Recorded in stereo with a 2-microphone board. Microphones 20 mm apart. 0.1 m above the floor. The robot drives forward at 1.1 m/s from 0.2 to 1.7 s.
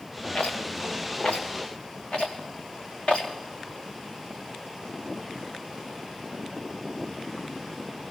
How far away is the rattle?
About 3.5 m.